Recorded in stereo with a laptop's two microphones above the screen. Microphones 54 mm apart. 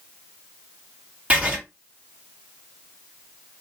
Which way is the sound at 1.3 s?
25° right (ahead or behind).